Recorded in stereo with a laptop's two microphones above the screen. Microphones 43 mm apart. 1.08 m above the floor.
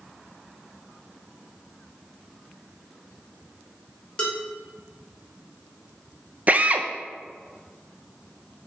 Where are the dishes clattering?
25° left (ahead or behind), 3 m.